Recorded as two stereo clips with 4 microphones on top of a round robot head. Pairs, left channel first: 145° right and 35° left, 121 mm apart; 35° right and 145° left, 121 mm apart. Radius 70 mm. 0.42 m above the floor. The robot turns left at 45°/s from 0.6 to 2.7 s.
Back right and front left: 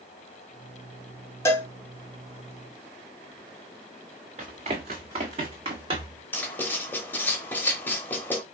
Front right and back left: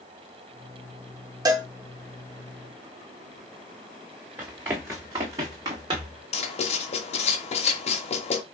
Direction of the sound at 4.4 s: 70° left.